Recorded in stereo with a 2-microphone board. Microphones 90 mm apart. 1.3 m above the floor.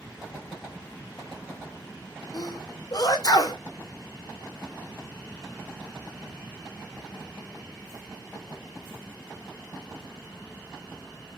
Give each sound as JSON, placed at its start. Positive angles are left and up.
{"t": 2.3, "sound": "a sneeze", "side_deg": 50, "distance_m": 1.1}